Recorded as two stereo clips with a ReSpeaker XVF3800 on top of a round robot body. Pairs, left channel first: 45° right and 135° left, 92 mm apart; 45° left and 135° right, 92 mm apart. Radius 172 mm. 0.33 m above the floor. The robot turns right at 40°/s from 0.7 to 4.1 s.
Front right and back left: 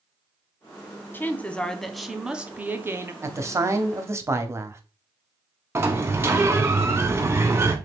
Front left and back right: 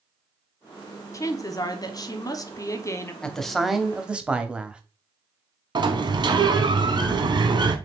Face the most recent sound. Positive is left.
turn(degrees=-165)